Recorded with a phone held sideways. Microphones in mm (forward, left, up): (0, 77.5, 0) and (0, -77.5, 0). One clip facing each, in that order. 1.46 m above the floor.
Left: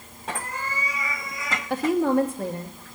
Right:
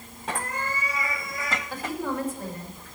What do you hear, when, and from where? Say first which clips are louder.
0.3 s a cat meowing: right 1 dB; 55° right (ahead or behind), 3 m
1.7 s a woman speaking: left 12 dB; 70° left (ahead or behind), 1.0 m